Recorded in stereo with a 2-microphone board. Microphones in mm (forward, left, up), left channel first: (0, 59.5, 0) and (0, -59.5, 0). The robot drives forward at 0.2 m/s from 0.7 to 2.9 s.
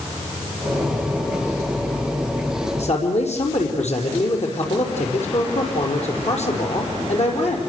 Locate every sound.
2.8 s a man speaking: 70° left (ahead or behind), 5.5 m